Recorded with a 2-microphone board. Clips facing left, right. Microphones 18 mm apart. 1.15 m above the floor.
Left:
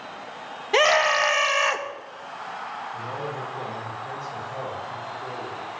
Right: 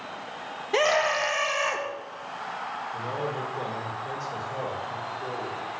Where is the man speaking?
80° right, 3 m.